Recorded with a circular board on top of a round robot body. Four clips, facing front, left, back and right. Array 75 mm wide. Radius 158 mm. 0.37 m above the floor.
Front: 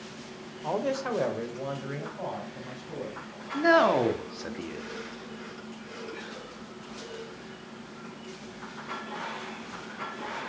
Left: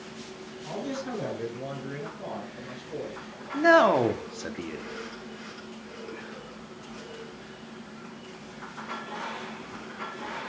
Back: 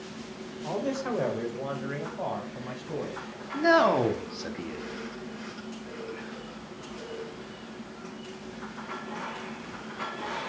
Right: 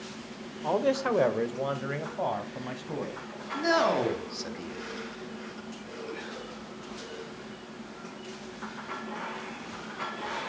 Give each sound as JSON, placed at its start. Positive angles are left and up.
{"t": 0.6, "sound": "a man speaking", "azimuth_deg": -60, "distance_m": 1.6}
{"t": 3.5, "sound": "a man speaking", "azimuth_deg": 75, "distance_m": 1.5}